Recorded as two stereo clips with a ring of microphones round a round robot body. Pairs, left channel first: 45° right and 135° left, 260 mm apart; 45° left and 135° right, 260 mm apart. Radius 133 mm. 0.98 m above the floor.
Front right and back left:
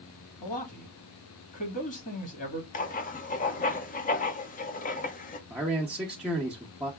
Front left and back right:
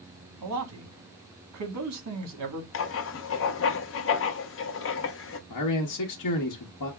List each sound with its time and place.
0.4 s a man speaking: 105° right, 1.7 m
2.7 s writing: 10° left, 0.7 m
5.5 s a man speaking: 50° left, 1.0 m